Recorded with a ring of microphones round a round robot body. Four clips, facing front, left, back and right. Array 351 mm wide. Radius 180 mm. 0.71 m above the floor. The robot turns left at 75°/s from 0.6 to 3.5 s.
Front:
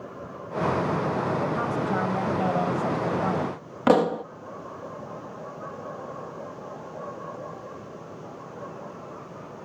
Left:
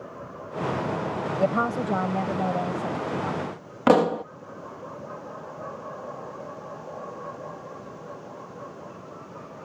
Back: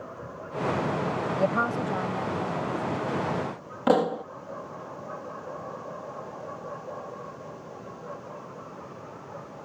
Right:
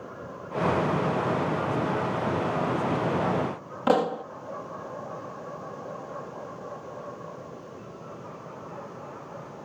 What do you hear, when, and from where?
1.4 s a woman speaking: 125° left; by 3.5 s 35° right
3.9 s a pop: 60° left